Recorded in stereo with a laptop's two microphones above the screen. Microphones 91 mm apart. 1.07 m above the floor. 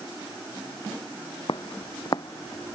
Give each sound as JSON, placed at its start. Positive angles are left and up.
{"t": 1.5, "sound": "footsteps", "side_deg": 55}